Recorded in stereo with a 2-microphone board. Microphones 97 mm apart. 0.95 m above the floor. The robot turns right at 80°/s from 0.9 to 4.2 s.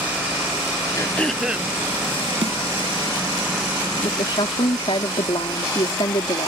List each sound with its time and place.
1.0 s throat clearing: 150° left; by 1.7 s 150° right
2.4 s a snare drum: 80° right; by 2.6 s 65° right (ahead or behind)
4.0 s a woman speaking: 75° left (ahead or behind); by 6.5 s 65° left (ahead or behind)